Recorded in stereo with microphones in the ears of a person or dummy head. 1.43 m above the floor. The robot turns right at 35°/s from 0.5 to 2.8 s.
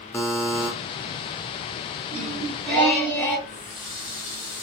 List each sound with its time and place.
0.1 s a buzzer: 15° left (ahead or behind), 0.5 m; by 0.7 s 10° left (ahead or behind), 0.5 m
2.1 s singing: 5° right (ahead or behind), 2.0 m; by 3.4 s 15° left (ahead or behind), 2.0 m
3.5 s a running tap: 20° left (ahead or behind), 0.5 m